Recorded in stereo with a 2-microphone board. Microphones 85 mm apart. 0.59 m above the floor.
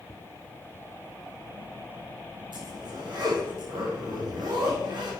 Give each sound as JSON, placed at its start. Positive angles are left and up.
{"t": 2.5, "sound": "a zipper", "side_deg": -65, "distance_m": 7.0}